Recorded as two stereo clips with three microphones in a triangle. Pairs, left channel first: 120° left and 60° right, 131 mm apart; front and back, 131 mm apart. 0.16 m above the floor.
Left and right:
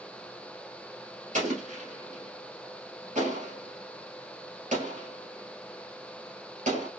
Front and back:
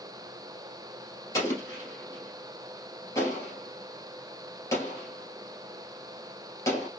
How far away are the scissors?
I don't hear scissors.